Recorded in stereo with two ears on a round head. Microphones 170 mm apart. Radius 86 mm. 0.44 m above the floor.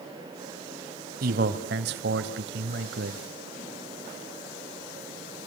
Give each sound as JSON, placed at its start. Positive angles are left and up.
{"t": 1.2, "sound": "a man speaking", "side_deg": -50, "distance_m": 2.5}